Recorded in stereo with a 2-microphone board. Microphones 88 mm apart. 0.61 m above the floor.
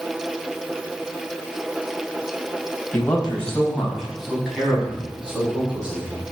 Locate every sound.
2.9 s a man speaking: 20° left (ahead or behind), 3 m; by 6.2 s 15° right (ahead or behind), 6.5 m